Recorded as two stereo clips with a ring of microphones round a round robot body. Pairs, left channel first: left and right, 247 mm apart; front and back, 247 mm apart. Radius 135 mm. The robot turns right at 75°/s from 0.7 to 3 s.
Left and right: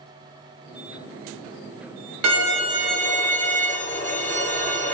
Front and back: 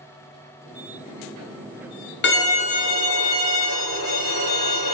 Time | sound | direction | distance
2.2 | a violin | 50° right | 0.6 m